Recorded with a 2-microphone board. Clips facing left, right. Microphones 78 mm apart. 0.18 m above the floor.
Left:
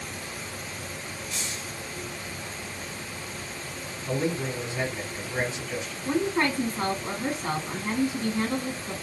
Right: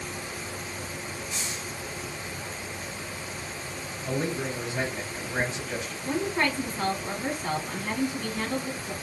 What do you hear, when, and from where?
1.3 s a hiss: 20° right (ahead or behind), 1.5 m
4.0 s a man speaking: 50° right (ahead or behind), 2 m
6.0 s a woman speaking: 20° left (ahead or behind), 1.3 m